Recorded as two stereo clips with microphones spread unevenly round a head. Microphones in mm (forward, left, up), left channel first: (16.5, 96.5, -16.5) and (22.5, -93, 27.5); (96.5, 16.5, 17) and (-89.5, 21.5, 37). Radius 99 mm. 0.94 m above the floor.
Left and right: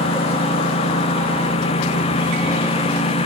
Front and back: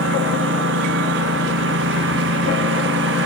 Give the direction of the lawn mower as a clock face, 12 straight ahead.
7 o'clock.